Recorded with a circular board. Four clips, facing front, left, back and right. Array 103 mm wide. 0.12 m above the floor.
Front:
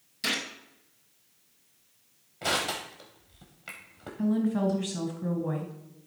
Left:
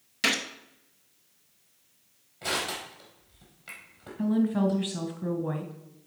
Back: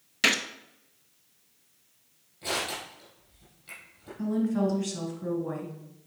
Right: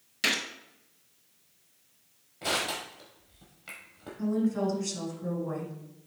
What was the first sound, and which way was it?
A gunshot, 170° left.